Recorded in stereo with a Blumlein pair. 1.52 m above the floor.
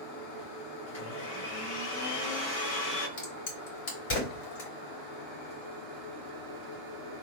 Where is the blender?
55° left, 2.5 m.